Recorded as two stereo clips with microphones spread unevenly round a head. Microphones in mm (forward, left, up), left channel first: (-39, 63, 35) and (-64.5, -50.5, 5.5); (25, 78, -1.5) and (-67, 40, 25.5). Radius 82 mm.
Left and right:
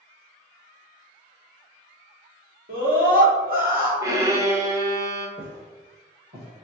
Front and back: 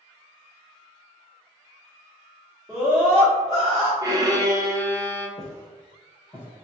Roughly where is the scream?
Right.